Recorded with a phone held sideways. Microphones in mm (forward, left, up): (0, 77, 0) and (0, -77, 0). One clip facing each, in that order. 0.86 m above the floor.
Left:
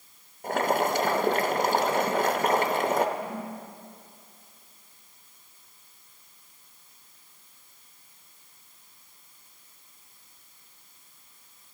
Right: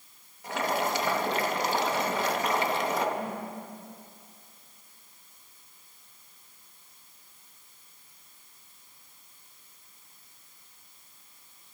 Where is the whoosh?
85° right, 3 m.